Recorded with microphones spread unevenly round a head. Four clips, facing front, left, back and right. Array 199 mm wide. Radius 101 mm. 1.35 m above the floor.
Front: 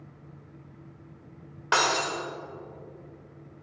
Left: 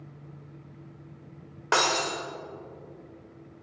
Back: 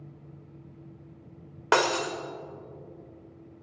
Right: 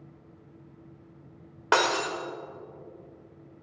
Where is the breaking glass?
160° right, 1.2 m.